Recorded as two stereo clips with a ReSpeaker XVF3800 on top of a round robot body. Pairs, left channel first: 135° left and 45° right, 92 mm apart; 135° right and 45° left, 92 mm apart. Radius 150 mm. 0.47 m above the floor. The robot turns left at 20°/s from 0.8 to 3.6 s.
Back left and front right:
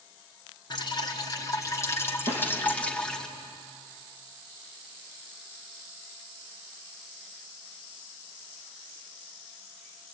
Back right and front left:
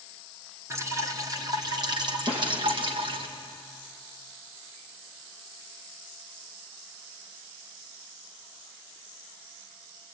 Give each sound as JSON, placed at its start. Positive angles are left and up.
{"t": 0.7, "sound": "dripping", "azimuth_deg": 100, "distance_m": 2.5}
{"t": 2.3, "sound": "a snare drum", "azimuth_deg": 15, "distance_m": 8.5}